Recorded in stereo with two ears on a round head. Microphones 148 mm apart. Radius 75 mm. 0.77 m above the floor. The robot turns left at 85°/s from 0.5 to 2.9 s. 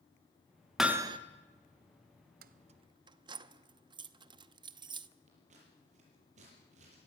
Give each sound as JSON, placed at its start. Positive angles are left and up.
{"t": 0.8, "sound": "hammering", "azimuth_deg": 0, "distance_m": 1.2}
{"t": 2.4, "sound": "keys jangling", "side_deg": -60, "distance_m": 0.7}
{"t": 5.3, "sound": "scissors", "side_deg": -40, "distance_m": 7.5}